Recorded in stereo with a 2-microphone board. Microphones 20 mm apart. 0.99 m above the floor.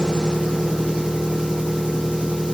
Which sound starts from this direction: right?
An engine running, at 0.0 s.